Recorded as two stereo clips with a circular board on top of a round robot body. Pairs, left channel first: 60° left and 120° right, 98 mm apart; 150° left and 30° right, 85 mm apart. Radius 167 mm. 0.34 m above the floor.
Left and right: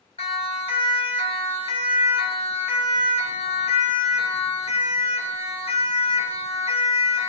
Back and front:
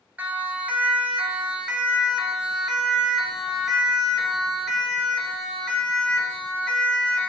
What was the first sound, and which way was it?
A siren, 45° left.